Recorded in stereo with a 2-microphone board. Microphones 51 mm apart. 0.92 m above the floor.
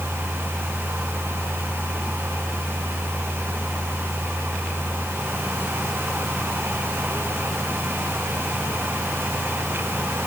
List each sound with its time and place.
Only background noise.